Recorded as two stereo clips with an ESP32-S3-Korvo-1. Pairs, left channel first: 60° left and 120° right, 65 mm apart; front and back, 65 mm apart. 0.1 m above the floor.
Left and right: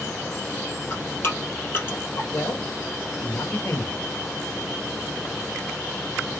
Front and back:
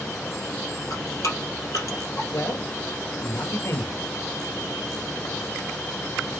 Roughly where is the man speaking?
Ahead.